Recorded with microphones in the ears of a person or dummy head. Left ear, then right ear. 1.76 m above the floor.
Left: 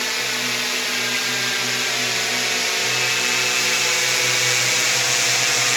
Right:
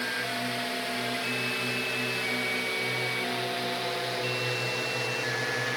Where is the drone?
35° left (ahead or behind); by 5.8 s 60° left (ahead or behind).